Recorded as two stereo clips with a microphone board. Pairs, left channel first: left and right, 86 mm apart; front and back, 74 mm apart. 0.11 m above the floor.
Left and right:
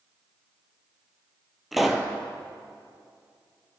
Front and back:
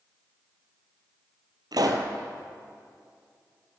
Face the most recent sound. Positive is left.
turn(degrees=180)